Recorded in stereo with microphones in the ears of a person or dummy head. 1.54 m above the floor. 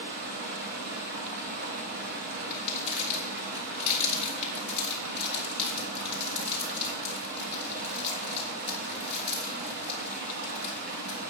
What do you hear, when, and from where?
0.0 s running water: 55° right (ahead or behind), 2.0 m
2.5 s crumpling: 35° left (ahead or behind), 2.5 m